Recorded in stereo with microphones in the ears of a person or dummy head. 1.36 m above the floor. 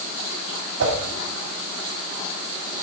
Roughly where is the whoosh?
Right.